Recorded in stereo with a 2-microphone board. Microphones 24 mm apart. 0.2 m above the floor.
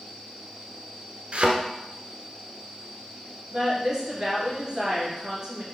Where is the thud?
60° right (ahead or behind), 1.3 m.